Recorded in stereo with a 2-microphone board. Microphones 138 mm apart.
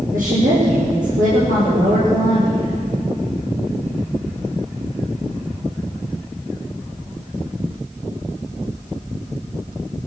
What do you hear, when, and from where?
0.1 s a woman speaking: 75° right (ahead or behind), 8 m